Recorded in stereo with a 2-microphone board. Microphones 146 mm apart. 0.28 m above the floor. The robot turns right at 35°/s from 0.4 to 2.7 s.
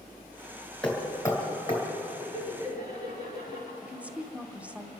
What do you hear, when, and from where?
0.8 s hammering: 5° left (ahead or behind), 3.5 m; by 1.8 s 40° left (ahead or behind), 3.5 m
2.2 s laughter: 30° left (ahead or behind), 5 m; by 3.7 s 45° left (ahead or behind), 5 m
3.8 s a woman speaking: 10° right (ahead or behind), 1.0 m